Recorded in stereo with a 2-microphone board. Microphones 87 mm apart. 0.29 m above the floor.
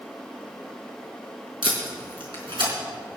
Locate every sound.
1.6 s tape being pulled: 70° right (ahead or behind), 4 m